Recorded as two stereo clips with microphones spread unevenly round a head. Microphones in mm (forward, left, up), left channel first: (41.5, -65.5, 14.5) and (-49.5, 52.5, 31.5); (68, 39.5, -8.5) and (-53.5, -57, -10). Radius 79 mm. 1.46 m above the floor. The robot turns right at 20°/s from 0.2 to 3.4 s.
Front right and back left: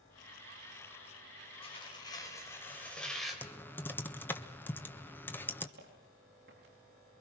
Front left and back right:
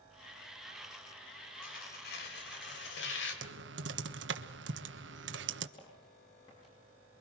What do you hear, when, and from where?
1.6 s tearing paper: 5° left, 3.5 m; by 3.4 s 40° left, 3.5 m
3.4 s typing on a keyboard: 130° right, 1.3 m
5.8 s footsteps: 100° left, 10 m